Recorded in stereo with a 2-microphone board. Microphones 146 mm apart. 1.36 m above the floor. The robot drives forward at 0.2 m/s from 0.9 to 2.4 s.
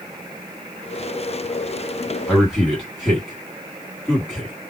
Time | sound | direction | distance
2.3 | a man speaking | 10° left (ahead or behind) | 1.9 m